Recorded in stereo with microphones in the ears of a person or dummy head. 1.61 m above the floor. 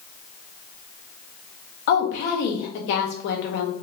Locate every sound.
1.9 s a woman speaking: 45° left (ahead or behind), 0.5 m